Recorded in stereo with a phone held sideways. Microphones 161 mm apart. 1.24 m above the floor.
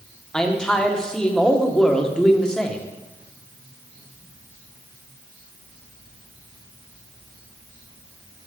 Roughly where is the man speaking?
Centre.